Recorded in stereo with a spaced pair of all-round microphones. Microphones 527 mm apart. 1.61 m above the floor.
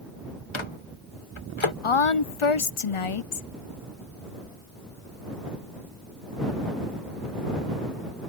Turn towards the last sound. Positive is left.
turn(degrees=65)  # may be behind; listen again after turning